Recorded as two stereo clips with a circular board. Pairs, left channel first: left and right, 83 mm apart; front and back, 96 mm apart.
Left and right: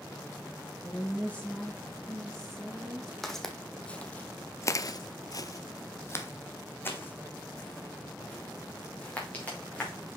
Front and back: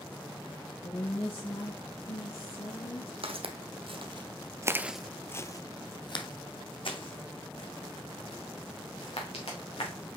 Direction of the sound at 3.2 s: 175° left.